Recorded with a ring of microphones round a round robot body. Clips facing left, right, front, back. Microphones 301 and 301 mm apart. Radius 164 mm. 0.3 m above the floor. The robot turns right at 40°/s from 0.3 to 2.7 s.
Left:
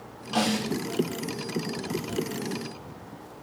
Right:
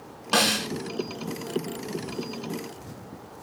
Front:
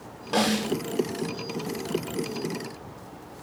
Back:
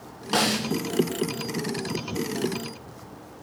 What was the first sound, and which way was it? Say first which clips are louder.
A snare drum: left 1 dB, front 1 dB; 110° right.